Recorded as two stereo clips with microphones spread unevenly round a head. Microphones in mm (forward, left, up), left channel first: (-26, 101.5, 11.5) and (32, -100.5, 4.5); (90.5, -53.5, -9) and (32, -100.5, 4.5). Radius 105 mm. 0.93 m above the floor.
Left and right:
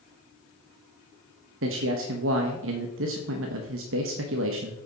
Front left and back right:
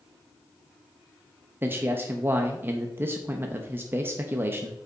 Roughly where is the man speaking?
Right.